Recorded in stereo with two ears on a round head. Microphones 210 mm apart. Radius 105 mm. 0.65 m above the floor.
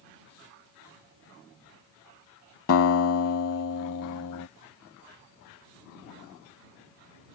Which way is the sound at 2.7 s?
60° left (ahead or behind).